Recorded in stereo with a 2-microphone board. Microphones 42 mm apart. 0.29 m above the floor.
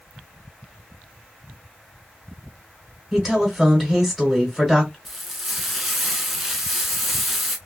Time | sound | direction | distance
3.1 | a woman speaking | centre (ahead or behind) | 1.2 m
5.0 | frying | 5° right (ahead or behind) | 0.8 m